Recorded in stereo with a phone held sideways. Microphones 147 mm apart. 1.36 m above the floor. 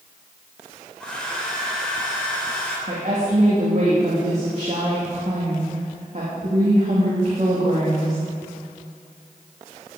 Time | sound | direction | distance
1.0 | a hair dryer | 5° left (ahead or behind) | 3 m
2.9 | a woman speaking | 50° right (ahead or behind) | 2.5 m